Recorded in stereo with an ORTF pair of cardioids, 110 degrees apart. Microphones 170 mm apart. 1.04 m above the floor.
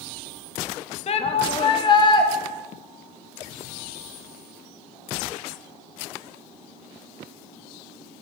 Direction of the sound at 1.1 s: 40° left.